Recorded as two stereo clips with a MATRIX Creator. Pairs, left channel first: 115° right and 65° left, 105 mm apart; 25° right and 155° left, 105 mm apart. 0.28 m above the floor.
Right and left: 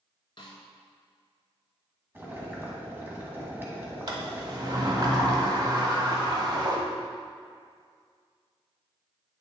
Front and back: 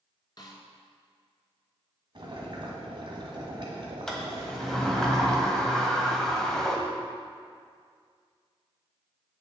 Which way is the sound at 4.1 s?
60° left.